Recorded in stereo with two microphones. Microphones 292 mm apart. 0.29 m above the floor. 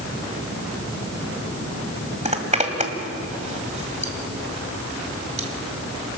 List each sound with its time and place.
2.2 s a zipper: 25° right (ahead or behind), 2 m